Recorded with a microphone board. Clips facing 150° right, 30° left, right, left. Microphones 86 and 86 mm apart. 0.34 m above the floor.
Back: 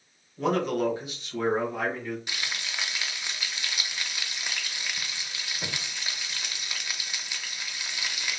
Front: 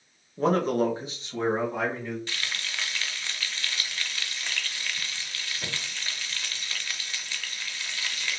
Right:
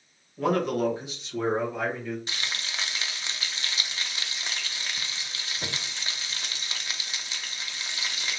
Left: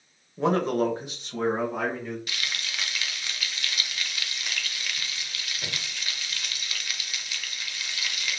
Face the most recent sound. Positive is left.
turn(degrees=-95)